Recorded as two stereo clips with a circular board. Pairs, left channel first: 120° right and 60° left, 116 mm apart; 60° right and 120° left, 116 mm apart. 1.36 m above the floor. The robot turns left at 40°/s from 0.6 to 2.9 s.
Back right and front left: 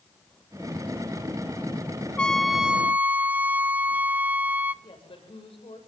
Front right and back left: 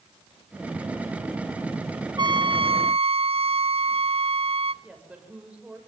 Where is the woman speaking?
160° right, 7 m.